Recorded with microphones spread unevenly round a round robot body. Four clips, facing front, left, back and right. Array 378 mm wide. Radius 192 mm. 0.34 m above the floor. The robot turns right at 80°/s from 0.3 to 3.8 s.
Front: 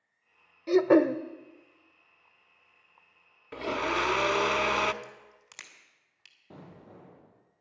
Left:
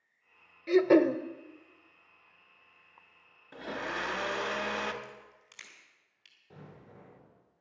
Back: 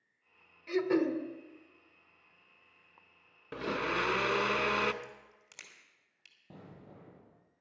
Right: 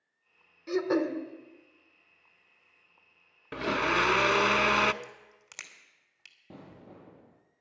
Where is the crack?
85° right, 2.5 m.